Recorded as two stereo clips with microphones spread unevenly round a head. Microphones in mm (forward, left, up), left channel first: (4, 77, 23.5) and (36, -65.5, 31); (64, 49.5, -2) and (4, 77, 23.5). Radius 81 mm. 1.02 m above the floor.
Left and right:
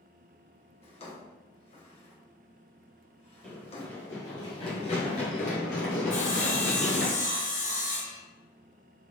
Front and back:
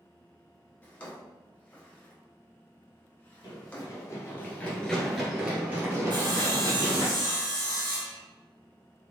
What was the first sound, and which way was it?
A drawer, 50° left.